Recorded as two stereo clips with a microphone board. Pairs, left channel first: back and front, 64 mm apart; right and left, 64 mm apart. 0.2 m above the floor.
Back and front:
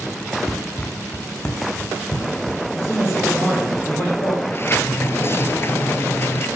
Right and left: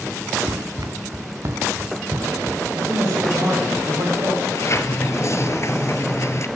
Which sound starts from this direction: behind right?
A sliding door, at 4.4 s.